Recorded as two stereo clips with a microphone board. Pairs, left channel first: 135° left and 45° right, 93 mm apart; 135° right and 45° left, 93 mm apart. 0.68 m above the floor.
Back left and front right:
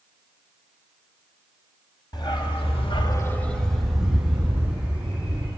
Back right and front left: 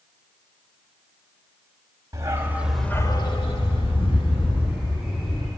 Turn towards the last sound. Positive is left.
turn(degrees=-120)